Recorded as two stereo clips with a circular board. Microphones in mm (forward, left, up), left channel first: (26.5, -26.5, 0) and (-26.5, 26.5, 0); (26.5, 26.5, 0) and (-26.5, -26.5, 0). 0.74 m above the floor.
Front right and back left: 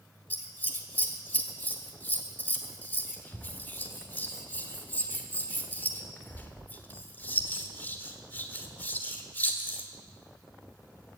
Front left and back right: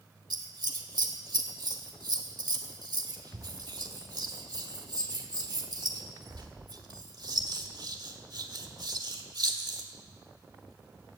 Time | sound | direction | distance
0.3 | scissors | 110° right | 1.4 m